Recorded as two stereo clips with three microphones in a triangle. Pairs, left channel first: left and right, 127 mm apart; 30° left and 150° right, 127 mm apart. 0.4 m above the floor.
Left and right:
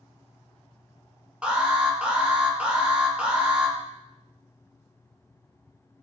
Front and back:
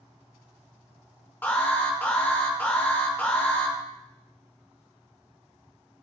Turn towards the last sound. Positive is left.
turn(degrees=-25)